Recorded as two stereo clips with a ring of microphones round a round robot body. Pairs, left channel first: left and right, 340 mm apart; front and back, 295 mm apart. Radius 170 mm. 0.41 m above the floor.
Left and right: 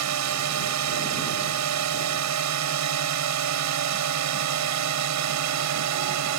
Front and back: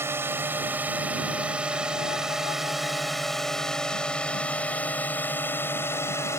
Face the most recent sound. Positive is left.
turn(degrees=-80)